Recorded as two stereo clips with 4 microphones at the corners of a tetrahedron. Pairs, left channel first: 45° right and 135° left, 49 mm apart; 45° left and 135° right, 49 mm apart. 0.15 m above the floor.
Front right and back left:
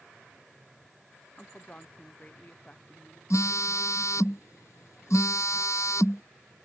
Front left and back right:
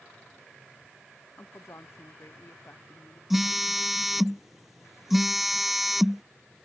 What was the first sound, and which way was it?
A woman speaking, 20° left.